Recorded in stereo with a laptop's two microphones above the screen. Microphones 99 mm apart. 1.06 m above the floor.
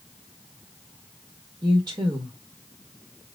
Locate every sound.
1.6 s a woman speaking: 40° right (ahead or behind), 1.2 m